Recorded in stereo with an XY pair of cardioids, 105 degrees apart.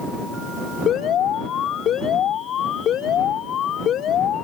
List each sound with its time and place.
0.9 s an alarm: 65° left